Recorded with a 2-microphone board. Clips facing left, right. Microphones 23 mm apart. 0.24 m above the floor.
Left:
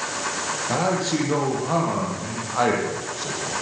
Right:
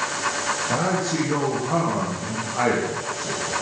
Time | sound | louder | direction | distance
0.7 | a man speaking | left 3 dB | 30° left (ahead or behind) | 7.5 m